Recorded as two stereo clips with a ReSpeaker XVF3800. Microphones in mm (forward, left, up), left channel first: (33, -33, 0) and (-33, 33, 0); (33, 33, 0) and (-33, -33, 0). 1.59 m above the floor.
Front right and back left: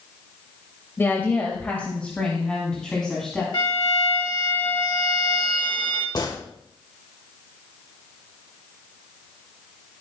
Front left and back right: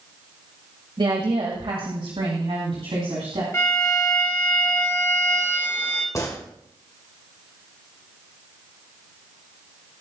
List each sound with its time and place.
1.0 s a woman speaking: 110° right, 1.6 m; by 3.4 s 130° right, 3 m
3.5 s a violin: 15° right, 1.9 m
6.2 s a gunshot: 5° right, 1.7 m